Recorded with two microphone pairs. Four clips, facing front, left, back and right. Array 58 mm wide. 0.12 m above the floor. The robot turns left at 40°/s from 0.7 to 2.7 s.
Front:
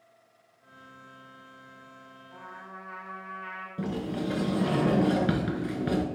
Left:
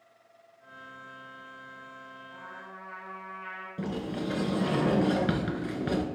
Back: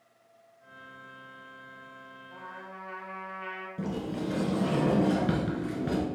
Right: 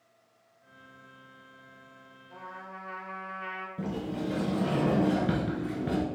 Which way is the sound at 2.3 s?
115° right.